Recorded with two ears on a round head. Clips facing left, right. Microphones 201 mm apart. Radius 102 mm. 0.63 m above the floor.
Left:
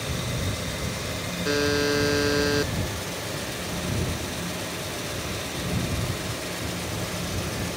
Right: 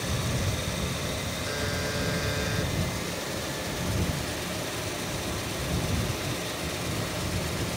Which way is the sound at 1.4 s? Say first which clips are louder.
Left 12 dB; 65° left (ahead or behind).